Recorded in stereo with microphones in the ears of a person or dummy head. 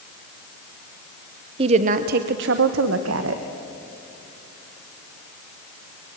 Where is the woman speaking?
35° right (ahead or behind), 1.0 m; by 3.4 s 80° right, 1.5 m.